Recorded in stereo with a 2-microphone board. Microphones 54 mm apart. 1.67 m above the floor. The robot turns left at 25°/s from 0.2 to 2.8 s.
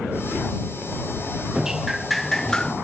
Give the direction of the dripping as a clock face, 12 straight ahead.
6 o'clock.